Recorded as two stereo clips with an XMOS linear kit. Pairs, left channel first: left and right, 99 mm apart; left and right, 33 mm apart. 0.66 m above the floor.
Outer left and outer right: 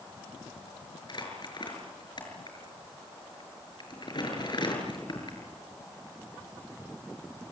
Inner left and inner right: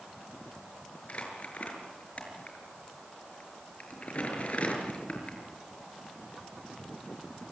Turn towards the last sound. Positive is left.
turn(degrees=45)  # may be behind; listen again after turning